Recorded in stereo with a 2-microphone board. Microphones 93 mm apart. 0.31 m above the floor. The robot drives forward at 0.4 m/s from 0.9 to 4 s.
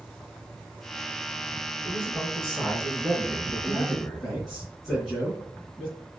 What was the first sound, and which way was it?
A man speaking, centre (ahead or behind).